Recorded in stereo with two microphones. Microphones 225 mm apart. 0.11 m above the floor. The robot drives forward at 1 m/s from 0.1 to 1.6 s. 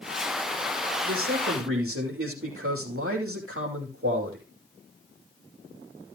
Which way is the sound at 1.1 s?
75° right (ahead or behind).